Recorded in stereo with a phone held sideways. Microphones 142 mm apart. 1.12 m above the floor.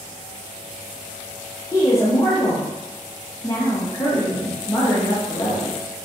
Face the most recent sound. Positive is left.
turn(degrees=20)  # may be behind; listen again after turning